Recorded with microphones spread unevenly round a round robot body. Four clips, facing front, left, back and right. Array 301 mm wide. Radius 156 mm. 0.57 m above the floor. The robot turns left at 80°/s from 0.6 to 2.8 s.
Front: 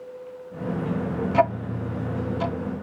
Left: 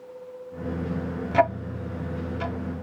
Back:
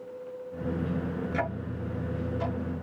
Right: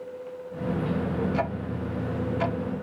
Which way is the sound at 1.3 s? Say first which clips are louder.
Left 6 dB, front 10 dB; 45° left.